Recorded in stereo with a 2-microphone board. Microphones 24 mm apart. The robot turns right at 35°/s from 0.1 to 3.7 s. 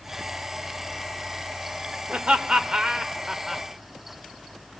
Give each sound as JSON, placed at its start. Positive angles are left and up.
{"t": 2.1, "sound": "laughter", "side_deg": -55, "distance_m": 1.8}